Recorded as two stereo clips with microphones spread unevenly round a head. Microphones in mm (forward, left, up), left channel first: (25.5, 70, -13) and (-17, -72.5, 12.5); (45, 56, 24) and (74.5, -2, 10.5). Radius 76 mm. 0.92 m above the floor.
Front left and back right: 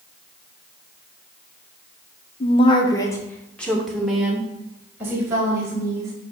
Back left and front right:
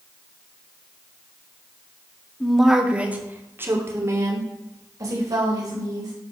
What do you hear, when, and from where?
2.4 s a woman speaking: 30° left, 1.8 m; by 6.1 s 35° right, 5 m